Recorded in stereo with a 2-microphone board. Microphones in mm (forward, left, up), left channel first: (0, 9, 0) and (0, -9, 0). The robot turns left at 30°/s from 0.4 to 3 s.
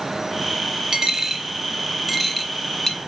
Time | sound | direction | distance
0.9 | a dropped coin | 25° right (ahead or behind) | 0.6 m